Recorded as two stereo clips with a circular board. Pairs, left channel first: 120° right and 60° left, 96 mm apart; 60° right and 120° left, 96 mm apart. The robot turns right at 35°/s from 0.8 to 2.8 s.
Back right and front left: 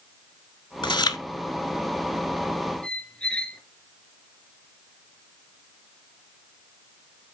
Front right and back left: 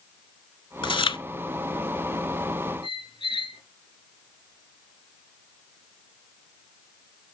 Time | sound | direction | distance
0.8 | chewing | 90° right | 0.7 m
2.8 | a squeak | 40° right | 1.6 m